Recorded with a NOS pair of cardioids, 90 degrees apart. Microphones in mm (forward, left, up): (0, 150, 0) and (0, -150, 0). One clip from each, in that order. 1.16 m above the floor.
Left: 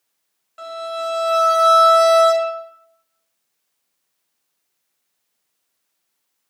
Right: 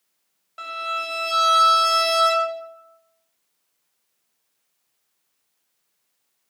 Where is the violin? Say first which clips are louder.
Left 1 dB; 10° right, 0.6 m.